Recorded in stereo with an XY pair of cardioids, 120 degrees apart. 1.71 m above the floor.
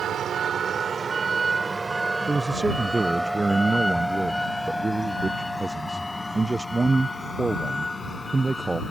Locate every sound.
0.0 s a vehicle: 55° right; by 8.9 s 15° left
2.3 s a man speaking: 15° right